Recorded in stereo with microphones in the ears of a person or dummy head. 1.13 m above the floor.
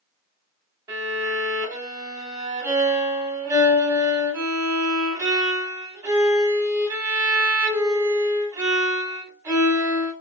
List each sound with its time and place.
0.9 s a violin: 20° right (ahead or behind), 1.0 m